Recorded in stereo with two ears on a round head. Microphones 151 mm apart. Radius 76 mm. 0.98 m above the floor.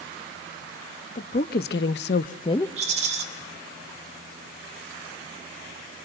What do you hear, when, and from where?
1.1 s a woman speaking: 45° left (ahead or behind), 1.2 m; by 2.7 s 20° left (ahead or behind), 0.7 m
2.8 s a rattle: 45° right (ahead or behind), 3 m